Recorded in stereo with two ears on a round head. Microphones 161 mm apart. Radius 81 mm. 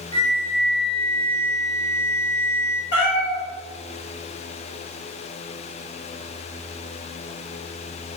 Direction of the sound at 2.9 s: 70° left (ahead or behind).